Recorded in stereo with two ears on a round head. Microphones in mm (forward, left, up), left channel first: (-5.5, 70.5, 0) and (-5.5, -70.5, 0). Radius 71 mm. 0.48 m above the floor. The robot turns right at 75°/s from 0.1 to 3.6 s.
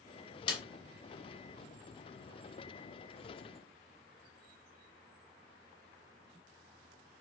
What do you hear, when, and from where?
0.5 s a snare drum: 30° left (ahead or behind), 0.5 m; by 0.6 s 40° left (ahead or behind), 0.5 m